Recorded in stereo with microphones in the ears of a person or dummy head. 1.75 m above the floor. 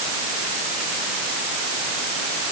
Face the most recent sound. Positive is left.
No sound to turn to.